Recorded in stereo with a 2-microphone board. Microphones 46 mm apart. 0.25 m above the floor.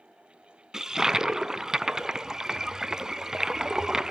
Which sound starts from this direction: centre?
A toilet flushing, at 0.7 s.